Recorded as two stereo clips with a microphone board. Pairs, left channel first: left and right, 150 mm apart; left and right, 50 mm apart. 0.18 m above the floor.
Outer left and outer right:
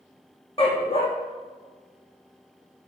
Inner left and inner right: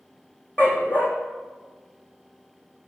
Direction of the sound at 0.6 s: 40° left (ahead or behind).